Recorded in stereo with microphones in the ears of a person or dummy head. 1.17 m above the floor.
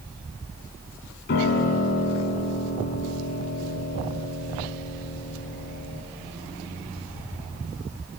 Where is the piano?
65° left (ahead or behind), 3 m.